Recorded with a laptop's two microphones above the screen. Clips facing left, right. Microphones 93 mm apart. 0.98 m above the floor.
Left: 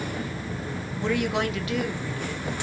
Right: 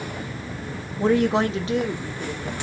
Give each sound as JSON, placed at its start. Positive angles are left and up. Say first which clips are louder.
{"t": 1.0, "sound": "a woman speaking", "louder": "right 6 dB", "side_deg": -40, "distance_m": 0.9}